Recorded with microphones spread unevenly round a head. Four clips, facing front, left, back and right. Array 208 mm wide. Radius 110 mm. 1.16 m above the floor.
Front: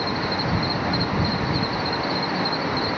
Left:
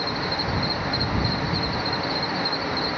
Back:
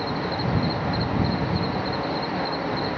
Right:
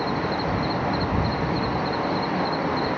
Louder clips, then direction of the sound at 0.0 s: Right 3 dB, front 1 dB; 145° right.